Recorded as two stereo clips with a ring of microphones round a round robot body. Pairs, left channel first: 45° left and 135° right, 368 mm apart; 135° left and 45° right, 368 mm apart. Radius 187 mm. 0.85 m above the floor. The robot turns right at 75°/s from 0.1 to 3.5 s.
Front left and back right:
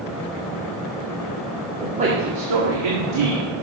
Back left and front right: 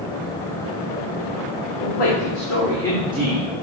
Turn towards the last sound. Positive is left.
turn(degrees=-95)